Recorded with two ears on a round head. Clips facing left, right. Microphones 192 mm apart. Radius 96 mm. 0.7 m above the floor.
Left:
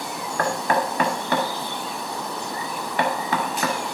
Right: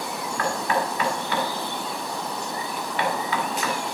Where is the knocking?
40° left (ahead or behind), 1.2 m.